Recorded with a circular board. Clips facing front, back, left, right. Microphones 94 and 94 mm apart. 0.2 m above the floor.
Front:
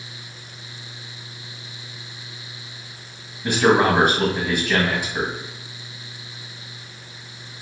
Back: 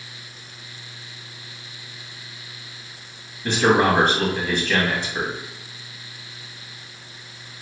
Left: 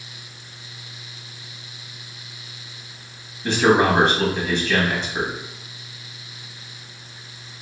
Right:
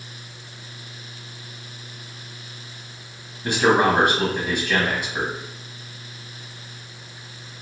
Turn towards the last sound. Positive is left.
turn(degrees=-45)